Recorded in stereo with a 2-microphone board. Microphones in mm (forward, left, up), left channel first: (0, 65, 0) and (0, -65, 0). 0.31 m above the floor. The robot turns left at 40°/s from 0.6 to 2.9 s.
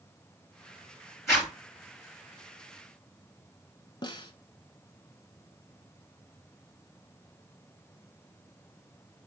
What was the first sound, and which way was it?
A zipper, 20° left (ahead or behind).